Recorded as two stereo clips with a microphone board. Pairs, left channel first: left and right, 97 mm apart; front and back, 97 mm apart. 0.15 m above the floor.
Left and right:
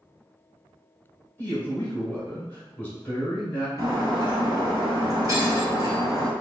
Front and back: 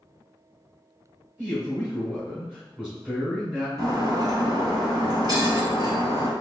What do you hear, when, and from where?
1.4 s a man speaking: 130° left, 1.7 m
3.8 s breaking glass: 140° right, 1.6 m